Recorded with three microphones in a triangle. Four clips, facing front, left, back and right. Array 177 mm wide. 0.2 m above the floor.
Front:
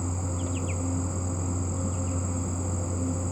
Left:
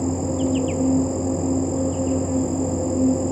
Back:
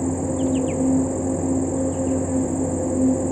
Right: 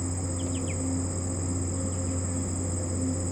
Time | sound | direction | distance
0.0 | an insect | 140° left | ?